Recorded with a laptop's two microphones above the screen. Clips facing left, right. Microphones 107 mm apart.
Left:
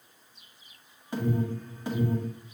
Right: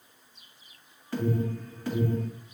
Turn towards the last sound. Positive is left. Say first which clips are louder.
# even
turn(degrees=20)  # may be behind; listen again after turning